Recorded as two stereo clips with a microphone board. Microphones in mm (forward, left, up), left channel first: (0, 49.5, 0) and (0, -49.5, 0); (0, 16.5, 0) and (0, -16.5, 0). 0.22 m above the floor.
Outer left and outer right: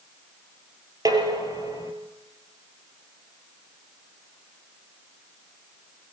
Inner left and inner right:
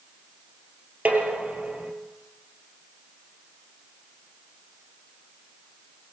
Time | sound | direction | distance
1.1 | dishes clattering | 40° right (ahead or behind) | 3 m